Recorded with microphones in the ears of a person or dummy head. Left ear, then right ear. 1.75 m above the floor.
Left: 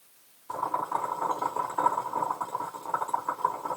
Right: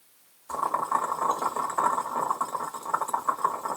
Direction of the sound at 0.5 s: 20° right (ahead or behind).